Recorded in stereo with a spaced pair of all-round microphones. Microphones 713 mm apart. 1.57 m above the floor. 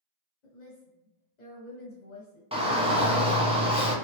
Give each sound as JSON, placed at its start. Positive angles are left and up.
{"t": 0.4, "sound": "a woman speaking", "side_deg": 75, "distance_m": 1.1}
{"t": 2.5, "sound": "a shout", "side_deg": -10, "distance_m": 1.0}